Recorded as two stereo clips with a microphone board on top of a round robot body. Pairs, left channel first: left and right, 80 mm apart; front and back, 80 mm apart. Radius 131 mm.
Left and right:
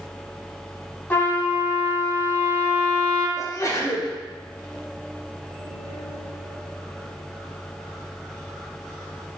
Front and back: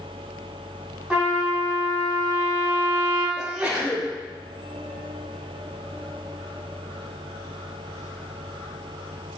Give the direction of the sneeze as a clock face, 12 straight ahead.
8 o'clock.